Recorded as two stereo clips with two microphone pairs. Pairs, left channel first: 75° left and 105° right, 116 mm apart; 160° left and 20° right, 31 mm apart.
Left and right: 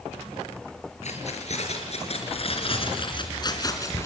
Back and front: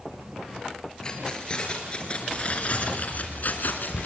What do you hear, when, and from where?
1.0 s keys jangling: 90° left, 4.5 m; by 4.1 s 140° left, 3 m